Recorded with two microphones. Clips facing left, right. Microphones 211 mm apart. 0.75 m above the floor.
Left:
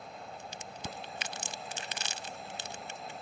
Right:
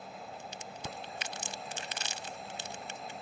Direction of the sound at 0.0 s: Centre (ahead or behind).